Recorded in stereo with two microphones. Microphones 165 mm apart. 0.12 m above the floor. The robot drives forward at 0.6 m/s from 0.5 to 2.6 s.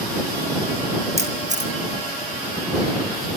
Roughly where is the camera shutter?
Right.